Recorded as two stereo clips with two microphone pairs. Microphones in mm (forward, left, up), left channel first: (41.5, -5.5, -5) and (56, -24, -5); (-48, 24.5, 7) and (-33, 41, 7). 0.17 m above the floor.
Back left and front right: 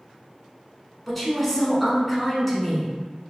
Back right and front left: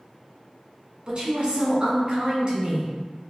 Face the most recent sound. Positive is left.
turn(degrees=45)